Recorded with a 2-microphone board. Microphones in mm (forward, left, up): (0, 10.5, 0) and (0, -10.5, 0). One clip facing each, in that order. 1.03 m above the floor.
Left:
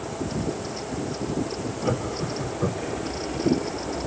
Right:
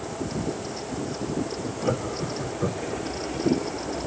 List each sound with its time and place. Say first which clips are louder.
1.8 s laughter: even; 5° right (ahead or behind), 3 m; by 3.0 s 5° left (ahead or behind), 2.5 m